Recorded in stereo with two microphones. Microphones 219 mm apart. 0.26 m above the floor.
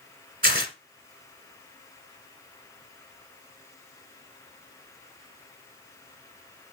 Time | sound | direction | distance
0.4 | tearing paper | 45° right (ahead or behind) | 1.2 m